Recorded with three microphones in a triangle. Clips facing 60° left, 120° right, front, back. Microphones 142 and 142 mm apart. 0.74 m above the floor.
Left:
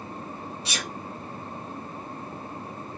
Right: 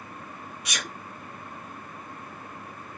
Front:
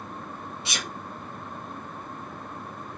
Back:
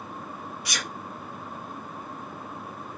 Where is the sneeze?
40° left, 0.7 m.